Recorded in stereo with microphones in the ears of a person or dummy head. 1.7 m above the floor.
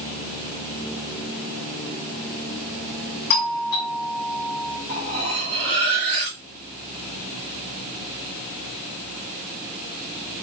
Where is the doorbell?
45° left (ahead or behind), 1.7 m.